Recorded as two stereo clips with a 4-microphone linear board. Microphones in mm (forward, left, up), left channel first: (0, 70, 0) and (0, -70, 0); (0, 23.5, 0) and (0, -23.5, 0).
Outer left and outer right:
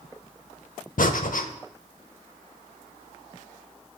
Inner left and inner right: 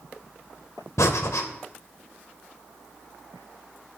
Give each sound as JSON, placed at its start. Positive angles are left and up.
{"t": 1.0, "sound": "breathing", "side_deg": 75, "distance_m": 0.6}